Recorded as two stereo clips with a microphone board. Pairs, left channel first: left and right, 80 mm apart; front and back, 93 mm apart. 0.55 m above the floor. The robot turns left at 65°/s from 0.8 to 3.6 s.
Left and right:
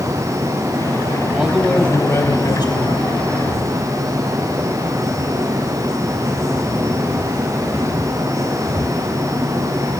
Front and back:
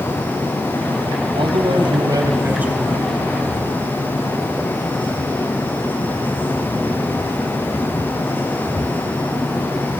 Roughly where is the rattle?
I don't hear a rattle.